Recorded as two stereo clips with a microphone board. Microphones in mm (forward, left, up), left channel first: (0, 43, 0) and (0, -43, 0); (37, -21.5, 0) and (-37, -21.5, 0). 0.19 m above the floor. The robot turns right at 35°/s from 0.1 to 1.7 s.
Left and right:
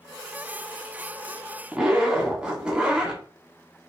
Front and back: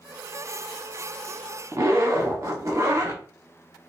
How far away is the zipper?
About 0.7 m.